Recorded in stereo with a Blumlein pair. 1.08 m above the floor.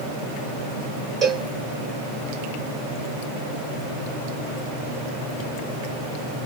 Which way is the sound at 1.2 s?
15° right.